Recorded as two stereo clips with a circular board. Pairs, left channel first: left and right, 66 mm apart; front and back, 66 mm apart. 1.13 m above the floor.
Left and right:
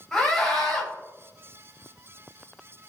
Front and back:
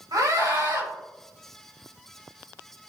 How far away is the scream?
About 4.5 m.